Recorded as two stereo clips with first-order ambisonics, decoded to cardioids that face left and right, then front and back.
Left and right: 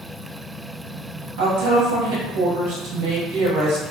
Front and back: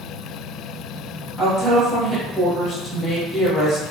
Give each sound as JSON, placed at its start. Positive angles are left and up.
{"t": 1.4, "sound": "a woman speaking", "azimuth_deg": -90, "distance_m": 1.4}